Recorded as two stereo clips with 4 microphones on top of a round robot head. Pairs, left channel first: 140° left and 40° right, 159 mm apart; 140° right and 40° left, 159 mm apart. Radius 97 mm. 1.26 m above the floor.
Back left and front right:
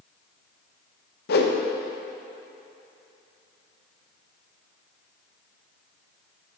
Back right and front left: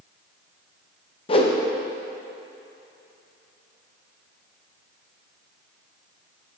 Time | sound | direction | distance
1.3 | a whoosh | 165° left | 0.7 m